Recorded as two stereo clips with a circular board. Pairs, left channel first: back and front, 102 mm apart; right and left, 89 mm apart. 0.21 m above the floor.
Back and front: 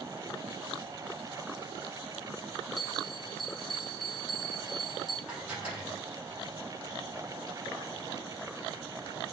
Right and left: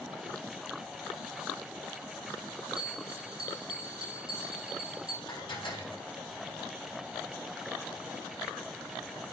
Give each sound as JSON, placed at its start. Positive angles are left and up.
{"t": 2.8, "sound": "a bell", "azimuth_deg": 90, "distance_m": 2.5}
{"t": 5.3, "sound": "dishes clattering", "azimuth_deg": -75, "distance_m": 4.0}